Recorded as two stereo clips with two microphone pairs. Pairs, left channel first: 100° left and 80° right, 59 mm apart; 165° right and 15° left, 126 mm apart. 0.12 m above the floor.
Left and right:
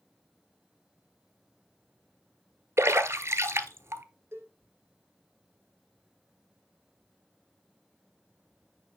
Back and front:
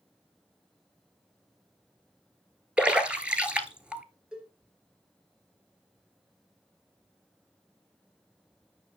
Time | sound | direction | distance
2.8 | a splash | 65° right | 0.9 m
4.3 | a cowbell | 65° right | 1.9 m